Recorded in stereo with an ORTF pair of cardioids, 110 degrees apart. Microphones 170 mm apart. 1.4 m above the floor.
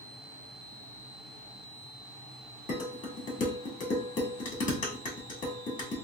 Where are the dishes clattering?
50° left, 1.6 m.